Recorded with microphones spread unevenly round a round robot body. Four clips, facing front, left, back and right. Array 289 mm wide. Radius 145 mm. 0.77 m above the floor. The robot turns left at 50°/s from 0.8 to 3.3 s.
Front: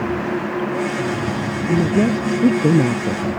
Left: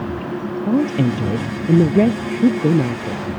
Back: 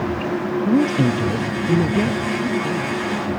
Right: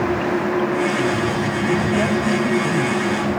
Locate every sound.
0.7 s a woman speaking: 135° left; by 3.3 s 10° left